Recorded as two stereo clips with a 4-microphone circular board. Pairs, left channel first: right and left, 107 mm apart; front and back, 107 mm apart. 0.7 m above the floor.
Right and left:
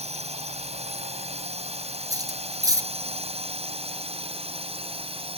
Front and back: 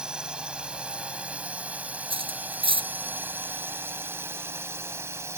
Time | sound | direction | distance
0.0 | a drone | 100° left | ?
2.1 | cutlery clinking | 145° left | ?